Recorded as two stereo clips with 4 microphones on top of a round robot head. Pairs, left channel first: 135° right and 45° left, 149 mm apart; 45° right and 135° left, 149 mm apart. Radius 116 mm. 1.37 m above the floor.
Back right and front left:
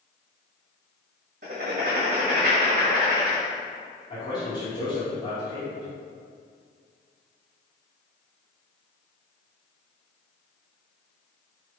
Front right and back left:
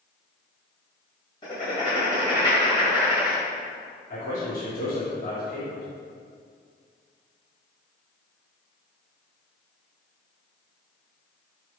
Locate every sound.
1.4 s writing: 15° left, 1.6 m
4.1 s a man speaking: 70° right, 2.5 m